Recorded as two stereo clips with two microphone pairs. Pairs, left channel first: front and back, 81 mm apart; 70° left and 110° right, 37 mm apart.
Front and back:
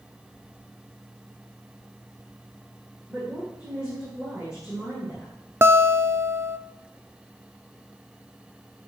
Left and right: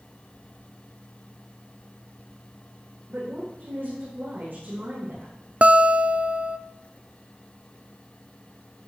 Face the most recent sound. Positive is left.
turn(degrees=-140)